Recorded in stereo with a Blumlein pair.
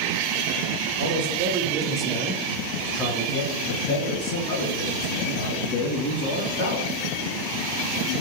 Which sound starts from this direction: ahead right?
A man speaking, at 1.0 s.